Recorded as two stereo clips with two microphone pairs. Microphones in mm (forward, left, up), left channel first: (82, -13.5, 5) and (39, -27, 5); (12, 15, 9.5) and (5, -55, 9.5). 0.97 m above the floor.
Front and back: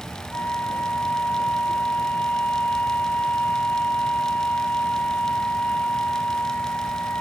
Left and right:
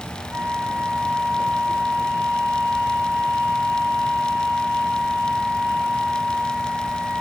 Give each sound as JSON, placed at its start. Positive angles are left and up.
{"t": 0.3, "sound": "a flute", "azimuth_deg": -45, "distance_m": 1.7}